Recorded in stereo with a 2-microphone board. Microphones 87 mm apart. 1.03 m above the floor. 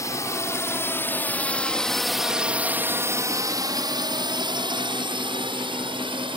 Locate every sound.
0.0 s a drone: 40° left (ahead or behind); by 6.4 s 75° right (ahead or behind)